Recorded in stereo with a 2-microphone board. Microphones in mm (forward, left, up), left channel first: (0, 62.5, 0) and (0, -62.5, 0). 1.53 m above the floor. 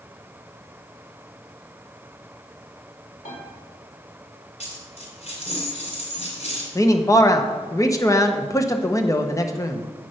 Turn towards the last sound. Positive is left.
turn(degrees=25)  # may be behind; listen again after turning